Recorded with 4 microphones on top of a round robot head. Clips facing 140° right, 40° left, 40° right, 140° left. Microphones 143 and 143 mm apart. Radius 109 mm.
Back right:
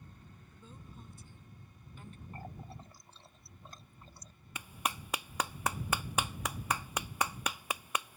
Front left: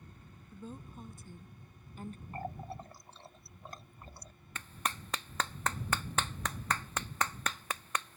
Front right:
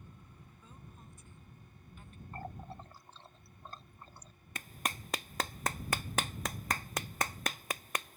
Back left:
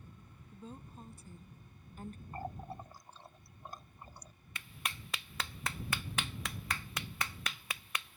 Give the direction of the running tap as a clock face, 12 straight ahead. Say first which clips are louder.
Front left 7 dB, back left 1 dB; 10 o'clock.